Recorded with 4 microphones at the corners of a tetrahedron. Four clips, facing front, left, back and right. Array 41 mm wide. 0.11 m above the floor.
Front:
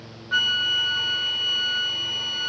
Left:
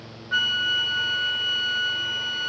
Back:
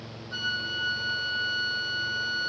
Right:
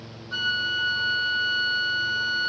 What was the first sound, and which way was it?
A flute, 30° left.